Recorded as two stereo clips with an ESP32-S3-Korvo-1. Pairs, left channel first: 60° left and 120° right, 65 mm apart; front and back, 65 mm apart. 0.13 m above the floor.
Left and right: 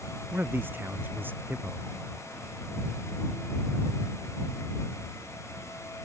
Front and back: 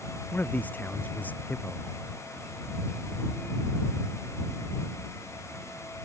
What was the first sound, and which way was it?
A man speaking, 65° right.